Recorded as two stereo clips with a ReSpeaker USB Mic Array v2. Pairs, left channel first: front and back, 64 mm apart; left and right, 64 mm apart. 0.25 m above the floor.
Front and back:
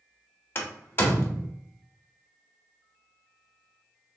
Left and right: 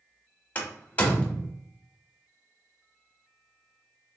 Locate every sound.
0.6 s a door slam: 35° left, 0.8 m